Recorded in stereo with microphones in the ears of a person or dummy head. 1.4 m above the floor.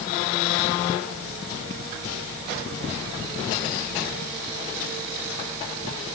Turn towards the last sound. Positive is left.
No sound to turn to.